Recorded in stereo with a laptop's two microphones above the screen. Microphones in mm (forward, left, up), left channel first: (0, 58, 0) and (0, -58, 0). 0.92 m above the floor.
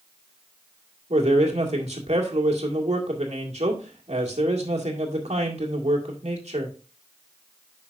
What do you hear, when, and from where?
1.1 s a man speaking: 75° right (ahead or behind), 2 m